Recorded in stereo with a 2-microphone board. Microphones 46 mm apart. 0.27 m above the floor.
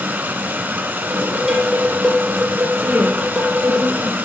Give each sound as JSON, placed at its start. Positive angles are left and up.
{"t": 0.0, "sound": "running water", "side_deg": -50, "distance_m": 2.0}
{"t": 1.1, "sound": "dishes clattering", "side_deg": -5, "distance_m": 5.0}
{"t": 2.8, "sound": "a woman speaking", "side_deg": -60, "distance_m": 3.0}